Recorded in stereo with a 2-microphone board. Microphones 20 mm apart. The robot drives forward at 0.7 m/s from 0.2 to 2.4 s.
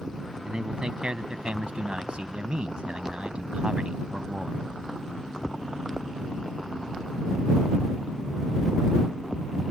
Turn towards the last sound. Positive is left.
turn(degrees=-55)  # may be behind; listen again after turning